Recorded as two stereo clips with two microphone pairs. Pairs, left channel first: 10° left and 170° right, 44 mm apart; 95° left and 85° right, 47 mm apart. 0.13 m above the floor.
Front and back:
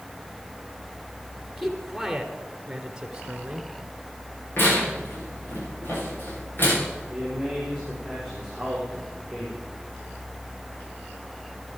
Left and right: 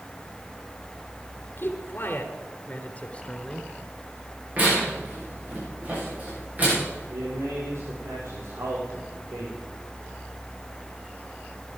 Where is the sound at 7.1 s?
80° right, 6.5 m.